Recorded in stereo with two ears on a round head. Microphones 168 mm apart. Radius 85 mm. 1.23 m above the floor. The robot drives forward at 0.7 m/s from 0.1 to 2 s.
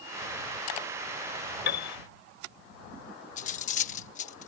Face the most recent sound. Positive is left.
turn(degrees=40)  # may be behind; listen again after turning